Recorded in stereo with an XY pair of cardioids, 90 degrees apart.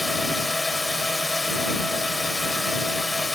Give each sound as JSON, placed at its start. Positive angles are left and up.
{"t": 0.0, "sound": "a drone", "azimuth_deg": 15}